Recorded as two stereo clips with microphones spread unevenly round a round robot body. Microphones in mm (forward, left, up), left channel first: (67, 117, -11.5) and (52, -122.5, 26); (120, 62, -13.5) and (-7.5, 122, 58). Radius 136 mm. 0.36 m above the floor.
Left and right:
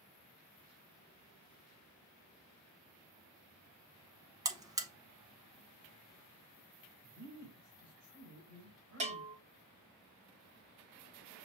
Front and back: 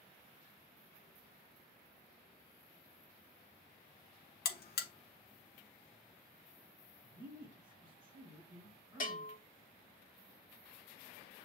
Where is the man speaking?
120° right, 2 m.